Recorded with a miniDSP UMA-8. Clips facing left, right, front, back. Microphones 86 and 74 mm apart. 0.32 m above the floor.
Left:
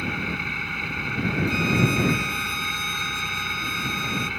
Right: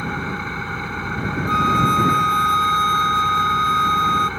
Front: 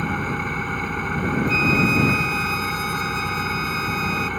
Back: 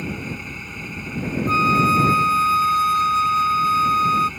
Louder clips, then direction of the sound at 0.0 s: Right 4 dB, front 5 dB; 35° right.